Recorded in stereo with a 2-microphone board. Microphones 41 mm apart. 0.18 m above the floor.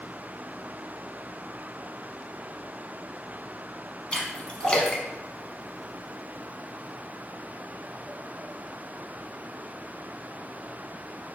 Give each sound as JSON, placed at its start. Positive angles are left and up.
{"t": 4.1, "sound": "a splash", "side_deg": 25, "distance_m": 0.7}